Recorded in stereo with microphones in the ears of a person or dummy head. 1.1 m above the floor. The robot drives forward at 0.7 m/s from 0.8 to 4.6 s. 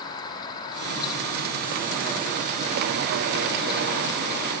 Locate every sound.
0.0 s an insect: 30° left (ahead or behind), 2 m; by 4.6 s 15° left (ahead or behind), 4.5 m